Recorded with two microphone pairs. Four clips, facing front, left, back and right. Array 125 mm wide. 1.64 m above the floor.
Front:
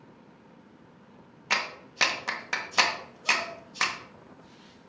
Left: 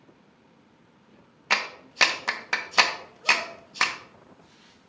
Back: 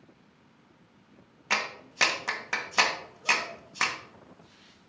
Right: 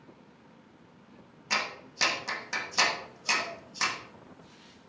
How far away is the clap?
About 0.9 m.